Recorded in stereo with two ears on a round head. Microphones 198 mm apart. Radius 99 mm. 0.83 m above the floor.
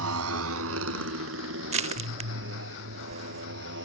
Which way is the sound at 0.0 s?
85° right.